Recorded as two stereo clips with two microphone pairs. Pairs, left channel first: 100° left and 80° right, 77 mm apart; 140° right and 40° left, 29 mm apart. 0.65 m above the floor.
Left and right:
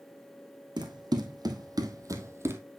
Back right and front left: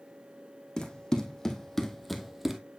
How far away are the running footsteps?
About 1.5 m.